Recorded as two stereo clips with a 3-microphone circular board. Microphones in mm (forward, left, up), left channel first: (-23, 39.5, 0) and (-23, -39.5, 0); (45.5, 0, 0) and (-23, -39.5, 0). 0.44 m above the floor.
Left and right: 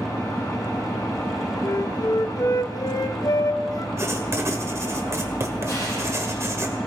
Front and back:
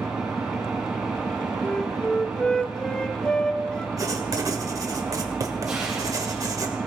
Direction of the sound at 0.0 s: 130° left.